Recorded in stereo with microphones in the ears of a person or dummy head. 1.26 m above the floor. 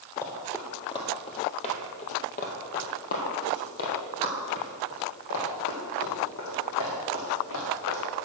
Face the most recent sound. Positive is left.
turn(degrees=70)  # may be behind; listen again after turning